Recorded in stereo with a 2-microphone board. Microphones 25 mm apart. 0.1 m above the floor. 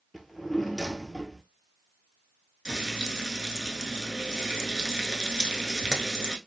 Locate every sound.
0.1 s a drawer: 5° left (ahead or behind), 0.6 m
2.6 s frying: 25° right (ahead or behind), 0.6 m